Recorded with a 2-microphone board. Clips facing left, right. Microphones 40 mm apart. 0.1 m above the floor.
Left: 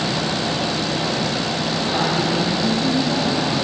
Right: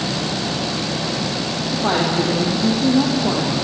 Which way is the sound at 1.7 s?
60° right (ahead or behind).